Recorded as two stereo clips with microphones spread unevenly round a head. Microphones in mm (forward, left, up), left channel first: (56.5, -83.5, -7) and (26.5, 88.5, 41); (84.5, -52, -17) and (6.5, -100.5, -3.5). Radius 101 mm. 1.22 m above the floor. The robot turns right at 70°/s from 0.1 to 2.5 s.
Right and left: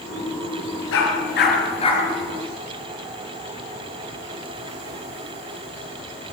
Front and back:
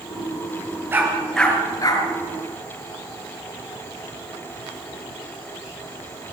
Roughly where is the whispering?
I don't hear whispering.